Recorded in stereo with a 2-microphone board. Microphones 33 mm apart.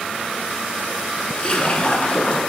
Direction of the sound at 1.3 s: 30° left (ahead or behind).